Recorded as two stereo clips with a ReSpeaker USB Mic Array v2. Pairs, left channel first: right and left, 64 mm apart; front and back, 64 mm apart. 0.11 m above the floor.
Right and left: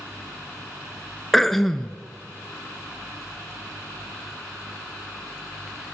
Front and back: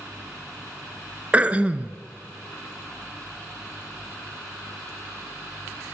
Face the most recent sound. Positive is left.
turn(degrees=-170)